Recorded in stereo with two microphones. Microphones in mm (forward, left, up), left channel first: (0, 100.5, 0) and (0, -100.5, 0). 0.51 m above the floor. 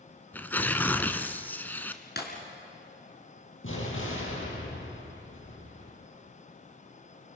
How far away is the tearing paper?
About 1.2 m.